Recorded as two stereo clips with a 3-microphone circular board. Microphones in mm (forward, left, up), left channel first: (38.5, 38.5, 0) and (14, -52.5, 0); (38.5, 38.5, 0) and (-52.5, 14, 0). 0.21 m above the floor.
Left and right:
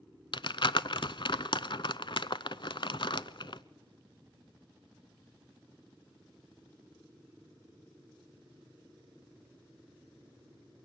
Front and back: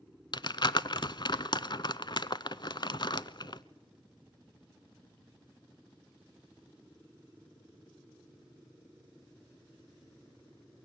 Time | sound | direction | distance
0.3 | crumpling | 50° left | 0.6 m